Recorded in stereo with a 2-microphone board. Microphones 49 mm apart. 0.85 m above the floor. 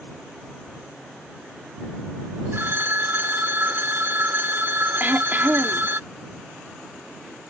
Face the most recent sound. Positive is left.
turn(degrees=-40)  # may be behind; listen again after turning